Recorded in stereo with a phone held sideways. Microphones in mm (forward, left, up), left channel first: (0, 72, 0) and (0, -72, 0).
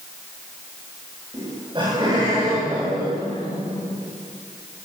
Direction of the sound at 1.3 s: 35° right (ahead or behind).